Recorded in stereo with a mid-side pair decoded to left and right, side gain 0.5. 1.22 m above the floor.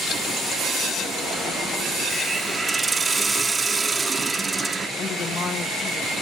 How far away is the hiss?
About 0.8 m.